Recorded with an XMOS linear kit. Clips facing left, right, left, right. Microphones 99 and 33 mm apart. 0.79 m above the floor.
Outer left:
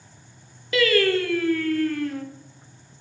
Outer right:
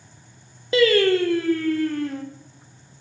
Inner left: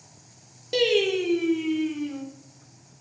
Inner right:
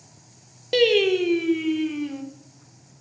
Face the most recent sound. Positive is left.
turn(degrees=-30)  # may be behind; listen again after turning